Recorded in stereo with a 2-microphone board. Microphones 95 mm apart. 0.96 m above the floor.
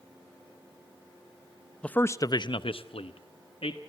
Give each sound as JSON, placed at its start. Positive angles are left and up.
{"t": 1.8, "sound": "a man speaking", "side_deg": 10, "distance_m": 0.6}